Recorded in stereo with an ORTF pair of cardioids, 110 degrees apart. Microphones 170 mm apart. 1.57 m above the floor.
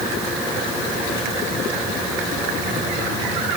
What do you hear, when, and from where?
Only background noise.